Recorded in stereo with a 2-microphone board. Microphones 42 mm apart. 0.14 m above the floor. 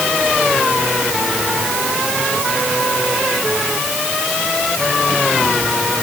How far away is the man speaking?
No man speaking in this recording.